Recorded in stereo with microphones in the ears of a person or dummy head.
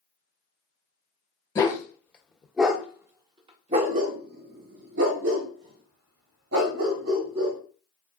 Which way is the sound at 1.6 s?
20° left (ahead or behind).